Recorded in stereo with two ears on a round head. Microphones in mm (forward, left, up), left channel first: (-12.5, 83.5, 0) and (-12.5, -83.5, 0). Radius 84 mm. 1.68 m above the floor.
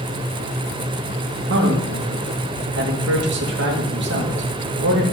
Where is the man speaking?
70° right (ahead or behind), 2.5 m.